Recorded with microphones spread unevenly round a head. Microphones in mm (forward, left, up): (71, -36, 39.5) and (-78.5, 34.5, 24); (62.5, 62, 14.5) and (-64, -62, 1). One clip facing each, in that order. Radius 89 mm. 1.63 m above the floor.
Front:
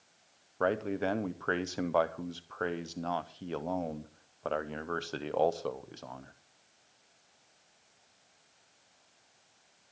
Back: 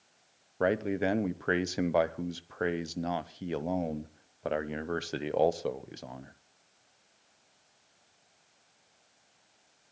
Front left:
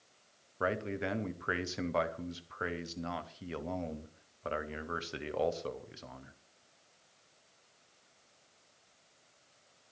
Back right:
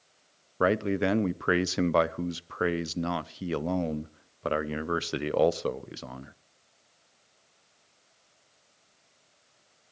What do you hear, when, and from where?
0.6 s a man speaking: 130° right, 0.6 m